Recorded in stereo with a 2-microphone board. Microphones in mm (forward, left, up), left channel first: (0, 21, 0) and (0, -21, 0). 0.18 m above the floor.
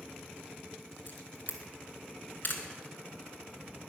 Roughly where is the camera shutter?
Left.